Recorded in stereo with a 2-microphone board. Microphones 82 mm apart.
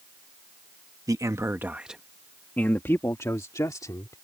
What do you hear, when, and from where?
1.1 s a man speaking: 45° right (ahead or behind); by 4.2 s 50° left (ahead or behind)